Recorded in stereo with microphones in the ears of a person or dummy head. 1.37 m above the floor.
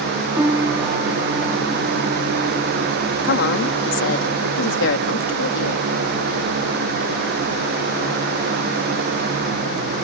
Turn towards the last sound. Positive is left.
turn(degrees=65)  # may be behind; listen again after turning